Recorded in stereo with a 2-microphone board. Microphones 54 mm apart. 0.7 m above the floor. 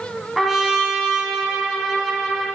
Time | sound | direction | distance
0.4 | a trumpet | 5° right (ahead or behind) | 1.0 m